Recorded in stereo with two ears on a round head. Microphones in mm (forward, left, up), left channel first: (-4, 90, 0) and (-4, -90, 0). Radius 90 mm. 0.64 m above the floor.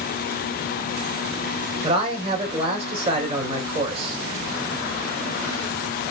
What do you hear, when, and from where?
1.8 s a man speaking: 30° right (ahead or behind), 3 m